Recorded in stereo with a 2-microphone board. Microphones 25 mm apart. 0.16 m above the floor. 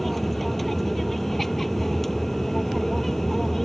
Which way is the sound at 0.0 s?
5° left (ahead or behind).